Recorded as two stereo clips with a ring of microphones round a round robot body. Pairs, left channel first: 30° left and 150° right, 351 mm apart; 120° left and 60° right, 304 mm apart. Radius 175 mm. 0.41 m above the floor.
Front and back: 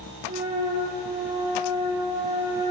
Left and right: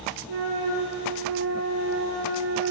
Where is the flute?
85° right, 5 m.